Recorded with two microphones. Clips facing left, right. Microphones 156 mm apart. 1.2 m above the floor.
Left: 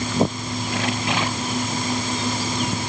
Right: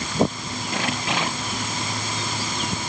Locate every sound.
Only background noise.